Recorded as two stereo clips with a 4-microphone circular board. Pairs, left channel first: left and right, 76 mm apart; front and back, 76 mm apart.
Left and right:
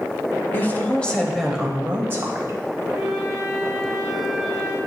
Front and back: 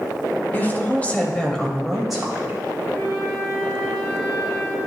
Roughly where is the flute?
Ahead.